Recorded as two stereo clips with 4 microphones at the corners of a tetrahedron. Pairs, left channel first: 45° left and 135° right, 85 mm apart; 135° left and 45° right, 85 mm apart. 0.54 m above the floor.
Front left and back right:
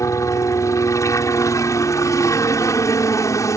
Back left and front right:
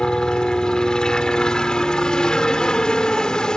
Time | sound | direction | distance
0.0 | a helicopter | 60° left | ?